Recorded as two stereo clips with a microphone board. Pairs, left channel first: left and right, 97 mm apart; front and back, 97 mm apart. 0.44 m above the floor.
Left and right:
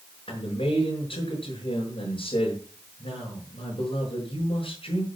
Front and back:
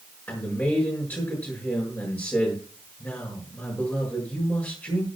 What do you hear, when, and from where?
0.3 s a man speaking: 70° left, 7.5 m